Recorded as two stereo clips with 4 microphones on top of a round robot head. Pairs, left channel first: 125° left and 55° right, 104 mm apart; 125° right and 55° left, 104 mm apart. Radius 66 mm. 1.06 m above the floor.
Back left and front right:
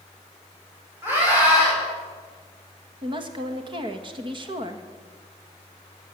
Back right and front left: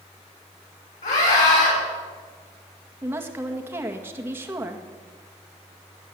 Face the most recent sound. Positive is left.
turn(degrees=-15)